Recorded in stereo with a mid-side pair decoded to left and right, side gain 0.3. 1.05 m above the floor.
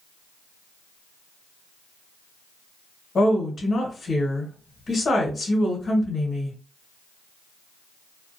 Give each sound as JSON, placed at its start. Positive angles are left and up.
{"t": 3.1, "sound": "a woman speaking", "azimuth_deg": 65, "distance_m": 1.2}